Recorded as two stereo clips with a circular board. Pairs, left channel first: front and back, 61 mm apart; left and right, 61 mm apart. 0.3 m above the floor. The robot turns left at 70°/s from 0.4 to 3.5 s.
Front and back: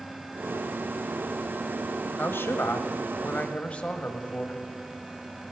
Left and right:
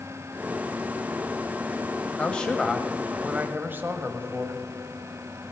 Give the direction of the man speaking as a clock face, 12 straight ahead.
11 o'clock.